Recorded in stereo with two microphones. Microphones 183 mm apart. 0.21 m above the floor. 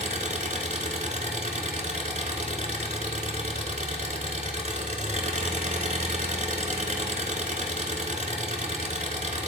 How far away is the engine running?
About 0.8 m.